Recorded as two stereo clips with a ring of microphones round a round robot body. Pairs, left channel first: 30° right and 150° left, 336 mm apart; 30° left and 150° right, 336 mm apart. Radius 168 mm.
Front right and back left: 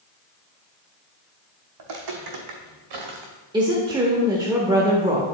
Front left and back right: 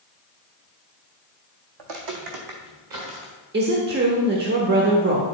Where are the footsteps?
175° right, 1.5 m; by 3.3 s 160° left, 2 m.